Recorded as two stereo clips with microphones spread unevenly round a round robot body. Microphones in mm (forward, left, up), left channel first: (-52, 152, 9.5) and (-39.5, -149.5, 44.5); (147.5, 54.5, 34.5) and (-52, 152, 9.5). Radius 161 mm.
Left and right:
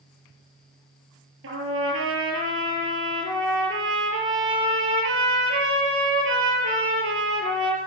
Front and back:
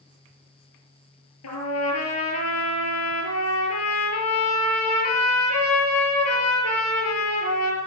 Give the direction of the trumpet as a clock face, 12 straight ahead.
1 o'clock.